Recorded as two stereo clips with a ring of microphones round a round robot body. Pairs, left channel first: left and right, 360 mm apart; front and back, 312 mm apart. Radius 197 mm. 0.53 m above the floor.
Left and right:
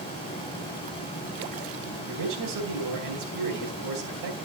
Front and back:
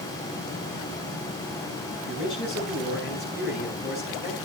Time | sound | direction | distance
2.0 | a man speaking | 60° right | 4.5 m